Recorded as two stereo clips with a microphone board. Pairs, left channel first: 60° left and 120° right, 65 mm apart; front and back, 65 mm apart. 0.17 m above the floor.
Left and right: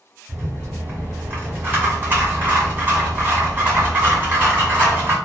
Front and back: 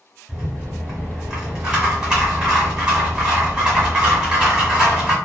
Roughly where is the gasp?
I don't hear a gasp.